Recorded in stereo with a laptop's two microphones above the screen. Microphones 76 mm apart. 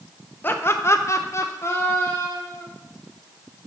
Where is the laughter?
25° left (ahead or behind), 0.5 m.